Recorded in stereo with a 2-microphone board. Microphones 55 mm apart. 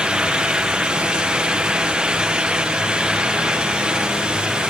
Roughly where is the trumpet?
I don't hear a trumpet.